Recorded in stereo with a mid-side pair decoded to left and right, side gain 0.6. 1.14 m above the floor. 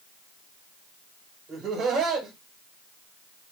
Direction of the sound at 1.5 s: 45° right.